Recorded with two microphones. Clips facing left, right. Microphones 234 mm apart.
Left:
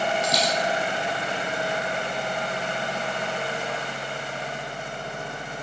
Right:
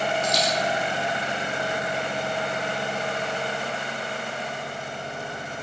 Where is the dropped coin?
70° left (ahead or behind), 3 m.